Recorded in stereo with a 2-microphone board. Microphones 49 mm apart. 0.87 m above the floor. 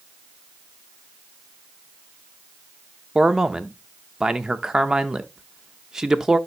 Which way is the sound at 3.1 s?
10° right (ahead or behind).